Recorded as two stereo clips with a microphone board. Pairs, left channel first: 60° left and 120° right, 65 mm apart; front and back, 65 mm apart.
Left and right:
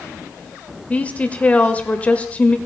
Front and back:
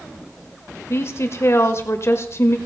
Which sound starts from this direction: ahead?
A woman speaking, at 0.9 s.